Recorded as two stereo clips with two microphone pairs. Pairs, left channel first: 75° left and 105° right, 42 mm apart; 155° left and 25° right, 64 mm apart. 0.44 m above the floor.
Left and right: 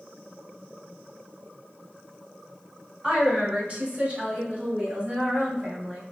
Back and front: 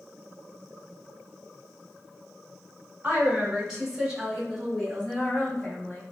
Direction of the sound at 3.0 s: 70° right.